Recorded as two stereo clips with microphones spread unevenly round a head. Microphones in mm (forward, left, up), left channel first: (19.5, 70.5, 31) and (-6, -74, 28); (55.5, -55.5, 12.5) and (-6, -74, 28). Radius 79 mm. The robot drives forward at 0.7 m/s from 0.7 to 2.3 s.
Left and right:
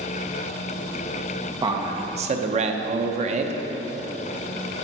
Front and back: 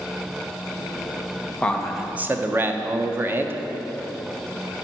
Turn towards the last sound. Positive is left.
turn(degrees=-100)